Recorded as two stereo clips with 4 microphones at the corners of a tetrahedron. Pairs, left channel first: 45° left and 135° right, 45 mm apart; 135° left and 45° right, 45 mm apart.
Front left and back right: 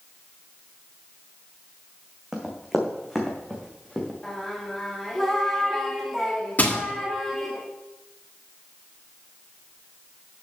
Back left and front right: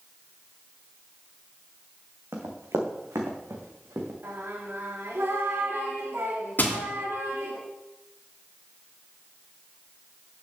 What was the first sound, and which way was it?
Running footsteps, 55° right.